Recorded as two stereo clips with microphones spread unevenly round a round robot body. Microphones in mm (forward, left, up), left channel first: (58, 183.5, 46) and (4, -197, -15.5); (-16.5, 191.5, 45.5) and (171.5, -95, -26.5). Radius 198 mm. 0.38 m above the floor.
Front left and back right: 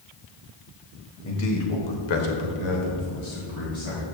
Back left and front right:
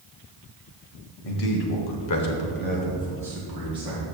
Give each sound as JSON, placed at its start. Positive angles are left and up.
{"t": 1.2, "sound": "a man speaking", "azimuth_deg": 140, "distance_m": 1.8}